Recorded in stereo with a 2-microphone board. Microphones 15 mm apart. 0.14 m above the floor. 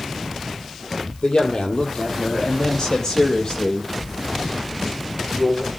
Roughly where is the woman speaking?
Left.